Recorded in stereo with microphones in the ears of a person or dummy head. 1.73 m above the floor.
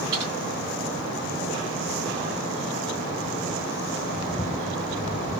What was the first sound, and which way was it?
Typing on a keyboard, 20° right (ahead or behind).